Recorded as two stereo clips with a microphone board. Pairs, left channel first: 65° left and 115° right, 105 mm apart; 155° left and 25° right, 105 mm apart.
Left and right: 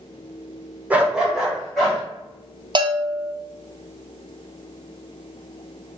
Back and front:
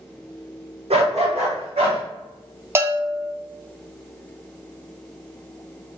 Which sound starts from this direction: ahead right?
A dog barking, at 0.9 s.